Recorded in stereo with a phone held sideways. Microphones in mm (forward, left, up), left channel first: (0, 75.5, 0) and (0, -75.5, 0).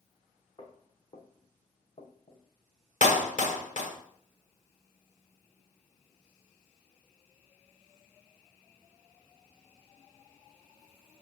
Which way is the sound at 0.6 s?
35° left (ahead or behind).